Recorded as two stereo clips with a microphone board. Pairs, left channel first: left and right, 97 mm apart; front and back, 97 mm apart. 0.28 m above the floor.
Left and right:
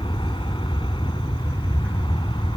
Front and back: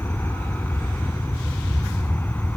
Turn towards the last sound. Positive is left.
turn(degrees=70)